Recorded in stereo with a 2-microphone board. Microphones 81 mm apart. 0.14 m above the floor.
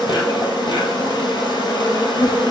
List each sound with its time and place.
0.0 s an insect: 65° left (ahead or behind), 1.3 m